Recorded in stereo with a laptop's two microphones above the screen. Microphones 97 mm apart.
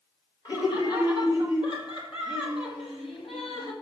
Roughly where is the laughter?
Left.